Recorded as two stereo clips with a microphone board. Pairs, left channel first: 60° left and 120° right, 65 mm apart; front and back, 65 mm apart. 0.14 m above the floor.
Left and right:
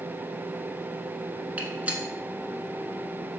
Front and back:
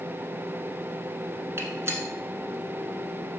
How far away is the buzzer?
No buzzer in this recording.